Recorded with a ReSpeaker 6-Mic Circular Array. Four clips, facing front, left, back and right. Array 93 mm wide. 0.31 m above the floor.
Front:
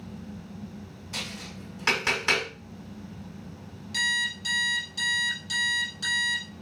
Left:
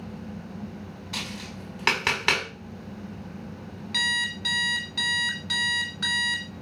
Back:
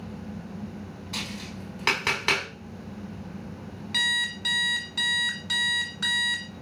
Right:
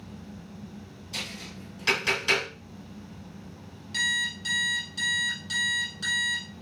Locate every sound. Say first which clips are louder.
1.1 s tapping: left 3 dB, back 2 dB; 110° left, 2.5 m
3.9 s an alarm clock: left 1 dB, even; 140° left, 1.0 m